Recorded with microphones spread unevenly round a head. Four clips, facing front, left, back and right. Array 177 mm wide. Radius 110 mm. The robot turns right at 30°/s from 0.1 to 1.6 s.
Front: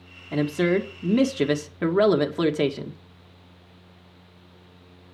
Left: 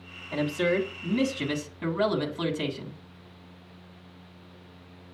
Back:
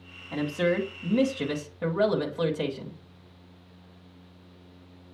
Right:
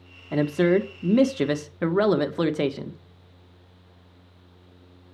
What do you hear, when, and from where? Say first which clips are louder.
0.3 s a man speaking: right 5 dB, front 4 dB; 75° right, 1.5 m; by 3.0 s 35° right, 1.5 m